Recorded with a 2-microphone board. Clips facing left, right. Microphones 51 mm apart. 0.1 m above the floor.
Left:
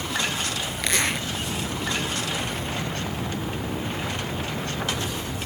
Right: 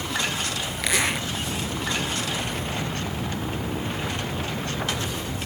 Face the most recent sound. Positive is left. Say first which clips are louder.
# right 1 dB
turn(degrees=-5)  # may be behind; listen again after turning